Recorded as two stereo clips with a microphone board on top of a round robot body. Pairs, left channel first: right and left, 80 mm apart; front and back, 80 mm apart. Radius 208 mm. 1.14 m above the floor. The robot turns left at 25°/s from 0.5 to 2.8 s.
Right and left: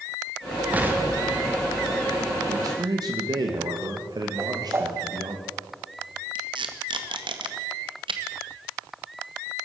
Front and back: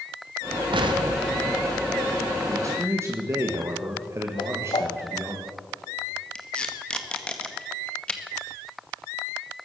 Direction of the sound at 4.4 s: 30° left.